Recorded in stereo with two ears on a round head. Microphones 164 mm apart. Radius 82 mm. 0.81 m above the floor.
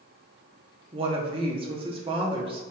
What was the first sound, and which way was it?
A woman speaking, 30° right (ahead or behind).